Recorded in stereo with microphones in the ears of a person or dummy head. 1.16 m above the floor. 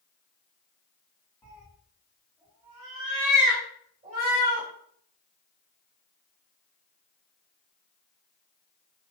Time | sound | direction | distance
1.4 | a cat meowing | 15° left (ahead or behind) | 1.0 m